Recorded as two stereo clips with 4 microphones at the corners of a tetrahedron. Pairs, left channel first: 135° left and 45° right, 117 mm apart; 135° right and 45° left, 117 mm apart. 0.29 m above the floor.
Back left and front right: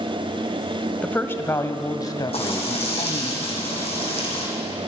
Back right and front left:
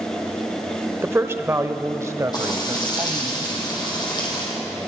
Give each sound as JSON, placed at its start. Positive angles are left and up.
{"t": 1.0, "sound": "a woman speaking", "azimuth_deg": 80, "distance_m": 0.9}
{"t": 2.3, "sound": "frying", "azimuth_deg": 170, "distance_m": 6.5}